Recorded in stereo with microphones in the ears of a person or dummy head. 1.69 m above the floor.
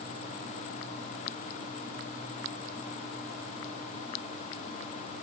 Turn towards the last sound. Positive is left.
No sound to turn to.